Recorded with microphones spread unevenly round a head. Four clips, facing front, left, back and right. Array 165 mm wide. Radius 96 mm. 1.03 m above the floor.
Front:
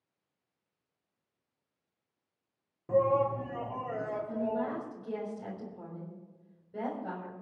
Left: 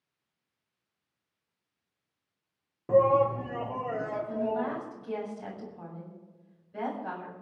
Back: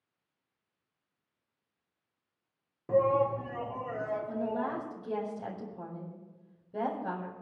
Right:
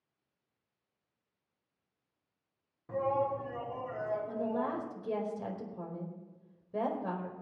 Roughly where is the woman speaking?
Right.